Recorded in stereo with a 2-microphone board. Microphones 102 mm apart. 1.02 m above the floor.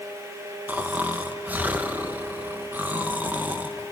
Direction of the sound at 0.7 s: 20° right (ahead or behind).